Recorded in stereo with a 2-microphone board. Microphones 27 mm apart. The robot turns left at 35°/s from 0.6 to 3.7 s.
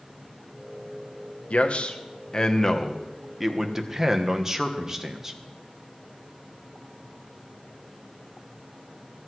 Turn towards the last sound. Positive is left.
turn(degrees=-20)